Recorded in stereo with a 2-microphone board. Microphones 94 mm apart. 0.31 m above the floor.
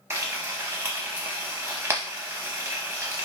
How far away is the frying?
About 0.6 m.